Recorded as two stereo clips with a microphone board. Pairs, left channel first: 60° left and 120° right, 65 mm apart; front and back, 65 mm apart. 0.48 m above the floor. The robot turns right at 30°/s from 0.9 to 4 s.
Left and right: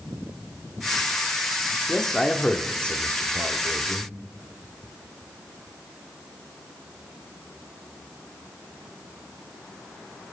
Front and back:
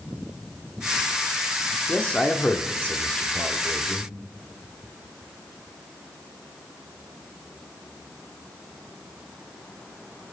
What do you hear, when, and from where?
1.9 s a man speaking: 10° right, 1.2 m; by 4.1 s 55° left, 1.2 m